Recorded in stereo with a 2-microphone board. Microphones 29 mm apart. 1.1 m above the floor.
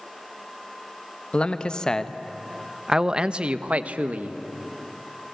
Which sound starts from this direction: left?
A man speaking, at 1.3 s.